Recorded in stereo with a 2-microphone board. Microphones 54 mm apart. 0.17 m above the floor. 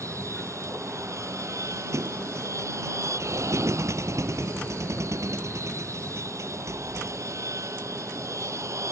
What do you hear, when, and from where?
0.0 s an aircraft: 75° right (ahead or behind)
1.9 s a thud: 75° right (ahead or behind)